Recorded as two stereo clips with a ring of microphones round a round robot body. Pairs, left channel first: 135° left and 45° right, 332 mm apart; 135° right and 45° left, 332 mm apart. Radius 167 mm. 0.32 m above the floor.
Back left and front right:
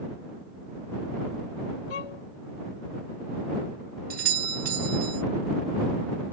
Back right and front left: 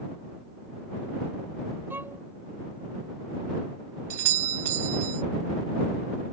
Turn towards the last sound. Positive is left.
turn(degrees=20)